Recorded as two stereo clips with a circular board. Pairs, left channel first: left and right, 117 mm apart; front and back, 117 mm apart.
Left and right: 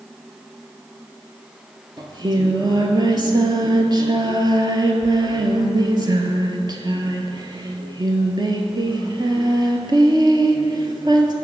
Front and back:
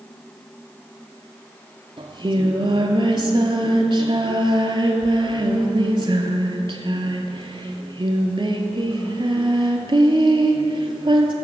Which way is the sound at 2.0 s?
140° right.